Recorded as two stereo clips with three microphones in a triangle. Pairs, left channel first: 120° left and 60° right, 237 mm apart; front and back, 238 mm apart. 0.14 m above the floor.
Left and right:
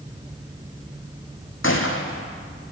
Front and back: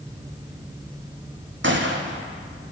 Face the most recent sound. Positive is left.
turn(degrees=145)